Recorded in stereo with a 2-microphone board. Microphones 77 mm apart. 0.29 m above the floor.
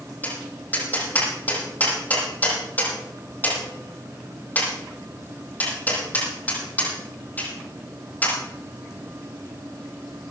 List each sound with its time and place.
0.2 s tapping: 20° left (ahead or behind), 8.5 m